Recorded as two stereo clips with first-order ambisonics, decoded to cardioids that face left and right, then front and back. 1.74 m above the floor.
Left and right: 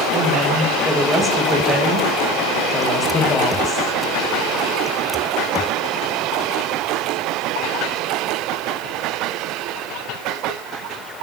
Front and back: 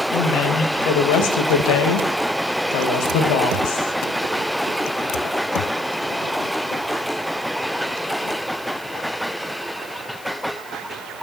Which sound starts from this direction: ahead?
A woman speaking, at 0.1 s.